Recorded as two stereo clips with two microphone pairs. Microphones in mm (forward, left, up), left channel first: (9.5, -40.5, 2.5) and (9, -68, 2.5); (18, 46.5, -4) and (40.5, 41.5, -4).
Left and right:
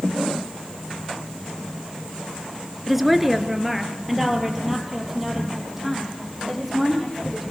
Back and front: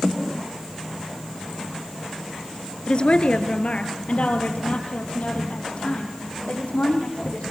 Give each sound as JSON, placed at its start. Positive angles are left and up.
{"t": 2.9, "sound": "a woman speaking", "azimuth_deg": -170, "distance_m": 2.0}